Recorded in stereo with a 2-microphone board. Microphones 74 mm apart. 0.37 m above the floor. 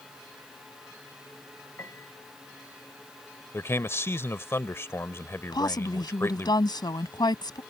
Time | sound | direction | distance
1.8 | a piano | 35° left (ahead or behind) | ?
3.5 | a man speaking | 35° left (ahead or behind) | ?
5.5 | a woman speaking | 70° left (ahead or behind) | ?